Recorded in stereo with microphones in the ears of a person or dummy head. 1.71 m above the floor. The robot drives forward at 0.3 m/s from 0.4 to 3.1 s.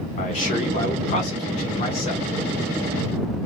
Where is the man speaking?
40° left (ahead or behind), 1.4 m; by 2.2 s 30° left (ahead or behind), 1.8 m.